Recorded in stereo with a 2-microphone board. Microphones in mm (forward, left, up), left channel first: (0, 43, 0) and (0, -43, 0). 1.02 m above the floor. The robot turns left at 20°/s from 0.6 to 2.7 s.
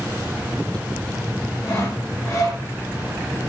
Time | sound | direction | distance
1.6 | sawing | 30° left (ahead or behind) | 2.0 m